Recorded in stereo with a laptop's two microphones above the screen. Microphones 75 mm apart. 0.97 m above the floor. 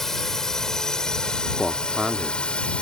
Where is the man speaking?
5° right (ahead or behind).